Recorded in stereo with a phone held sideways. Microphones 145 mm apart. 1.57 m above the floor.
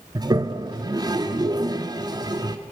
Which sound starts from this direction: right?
A toilet flushing, at 0.1 s.